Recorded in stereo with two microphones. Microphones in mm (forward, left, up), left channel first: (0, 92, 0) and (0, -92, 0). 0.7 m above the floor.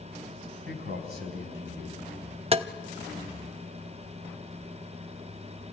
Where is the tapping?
35° right (ahead or behind), 0.6 m.